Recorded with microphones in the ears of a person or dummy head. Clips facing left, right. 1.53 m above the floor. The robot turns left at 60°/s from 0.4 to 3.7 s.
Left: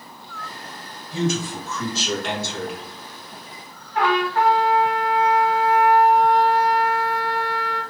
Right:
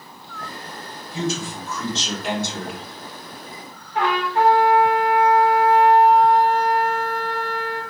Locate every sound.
1.1 s a man speaking: 60° left, 1.8 m; by 2.8 s 45° right, 1.8 m
4.0 s a trumpet: 15° right (ahead or behind), 0.9 m